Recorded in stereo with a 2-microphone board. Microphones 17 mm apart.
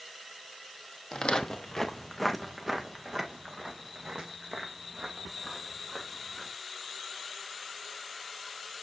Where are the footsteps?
55° left (ahead or behind), 1.1 m; by 6.5 s 60° right (ahead or behind), 3.5 m.